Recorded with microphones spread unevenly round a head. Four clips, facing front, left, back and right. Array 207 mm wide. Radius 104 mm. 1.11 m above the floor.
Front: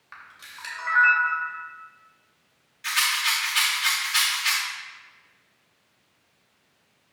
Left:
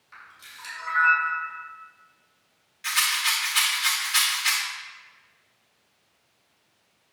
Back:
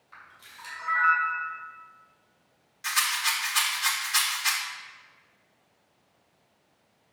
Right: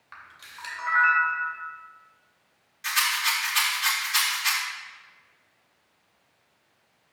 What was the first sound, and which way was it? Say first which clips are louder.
A camera shutter: right 2 dB, front 4 dB; 35° right.